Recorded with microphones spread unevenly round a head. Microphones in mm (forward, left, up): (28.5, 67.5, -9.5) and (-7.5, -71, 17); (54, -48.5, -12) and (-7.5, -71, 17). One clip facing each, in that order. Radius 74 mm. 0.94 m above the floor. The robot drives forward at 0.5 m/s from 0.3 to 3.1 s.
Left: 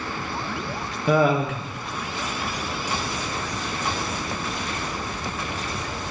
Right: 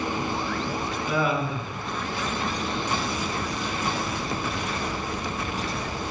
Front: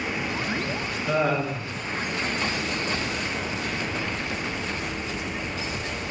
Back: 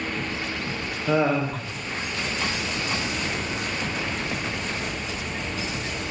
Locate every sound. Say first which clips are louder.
1.1 s laughter: left 7 dB, back 2 dB; 110° left, 0.6 m; by 1.7 s 135° left, 0.8 m